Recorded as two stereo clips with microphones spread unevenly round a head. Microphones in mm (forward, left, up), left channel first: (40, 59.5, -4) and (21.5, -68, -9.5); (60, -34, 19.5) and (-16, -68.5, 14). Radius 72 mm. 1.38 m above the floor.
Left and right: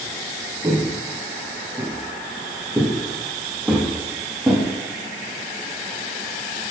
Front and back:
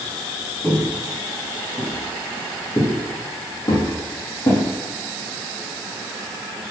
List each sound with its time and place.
0.6 s footsteps: 35° right, 1.8 m; by 4.6 s 10° right, 3.5 m